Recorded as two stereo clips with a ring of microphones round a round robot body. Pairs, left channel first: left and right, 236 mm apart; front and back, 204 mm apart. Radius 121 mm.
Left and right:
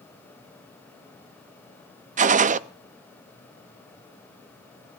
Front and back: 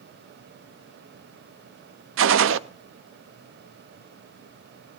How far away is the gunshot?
About 0.5 m.